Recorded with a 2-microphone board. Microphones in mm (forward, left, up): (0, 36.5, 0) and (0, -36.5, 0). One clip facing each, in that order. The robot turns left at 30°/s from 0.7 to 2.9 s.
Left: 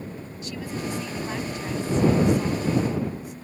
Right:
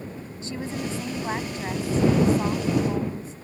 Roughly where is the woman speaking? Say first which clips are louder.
Right 1 dB; ahead right.